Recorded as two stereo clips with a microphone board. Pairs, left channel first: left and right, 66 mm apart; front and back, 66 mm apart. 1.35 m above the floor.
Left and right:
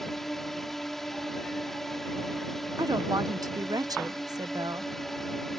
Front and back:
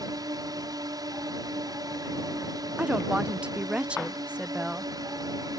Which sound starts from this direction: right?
A woman speaking, at 2.8 s.